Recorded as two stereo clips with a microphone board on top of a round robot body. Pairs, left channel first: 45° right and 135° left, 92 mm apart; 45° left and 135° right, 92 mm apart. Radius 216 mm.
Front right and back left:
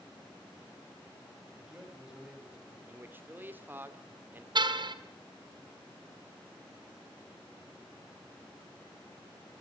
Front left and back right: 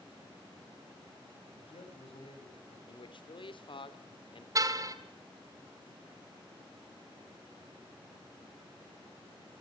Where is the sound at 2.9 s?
65° left, 2.5 m.